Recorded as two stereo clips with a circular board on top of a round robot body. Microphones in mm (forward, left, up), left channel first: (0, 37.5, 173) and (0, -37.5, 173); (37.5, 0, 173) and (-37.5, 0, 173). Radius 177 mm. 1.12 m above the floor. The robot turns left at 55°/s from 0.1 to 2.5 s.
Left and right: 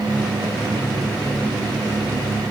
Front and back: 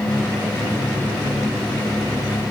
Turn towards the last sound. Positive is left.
No sound to turn to.